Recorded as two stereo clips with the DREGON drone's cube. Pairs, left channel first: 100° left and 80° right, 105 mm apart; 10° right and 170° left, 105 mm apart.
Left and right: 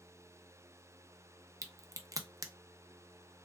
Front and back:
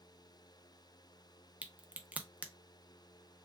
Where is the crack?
120° right, 0.5 m.